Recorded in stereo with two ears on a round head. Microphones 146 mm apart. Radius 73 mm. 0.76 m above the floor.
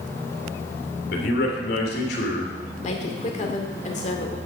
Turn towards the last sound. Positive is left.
turn(degrees=45)  # may be behind; listen again after turning